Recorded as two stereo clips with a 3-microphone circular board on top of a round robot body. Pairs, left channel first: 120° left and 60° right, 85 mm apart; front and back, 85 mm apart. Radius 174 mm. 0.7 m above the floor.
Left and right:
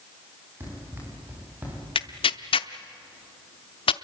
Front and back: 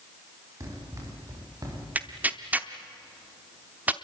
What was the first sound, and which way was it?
Running footsteps, 125° right.